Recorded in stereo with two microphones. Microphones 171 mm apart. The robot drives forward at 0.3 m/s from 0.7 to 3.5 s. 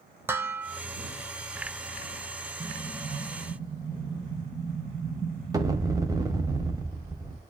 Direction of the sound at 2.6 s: 30° right (ahead or behind).